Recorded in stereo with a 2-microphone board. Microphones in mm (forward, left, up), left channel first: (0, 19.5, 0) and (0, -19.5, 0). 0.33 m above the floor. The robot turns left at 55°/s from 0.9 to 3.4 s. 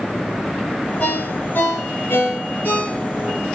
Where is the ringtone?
40° left (ahead or behind), 3 m; by 3.4 s 5° left (ahead or behind), 3 m.